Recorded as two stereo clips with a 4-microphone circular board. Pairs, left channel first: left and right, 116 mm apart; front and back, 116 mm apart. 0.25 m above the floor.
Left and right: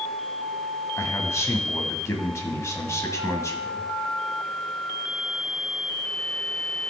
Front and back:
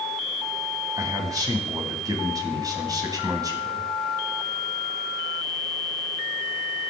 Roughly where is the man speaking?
Behind left.